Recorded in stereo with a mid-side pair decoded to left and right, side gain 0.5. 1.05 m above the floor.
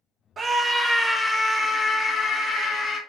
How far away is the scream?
About 0.7 m.